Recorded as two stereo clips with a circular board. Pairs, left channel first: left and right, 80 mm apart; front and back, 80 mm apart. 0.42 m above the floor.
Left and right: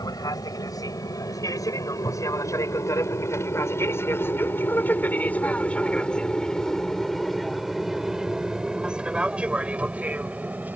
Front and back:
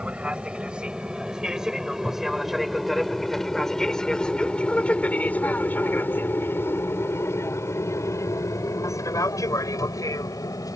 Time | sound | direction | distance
0.0 | an aircraft | 105° left | ?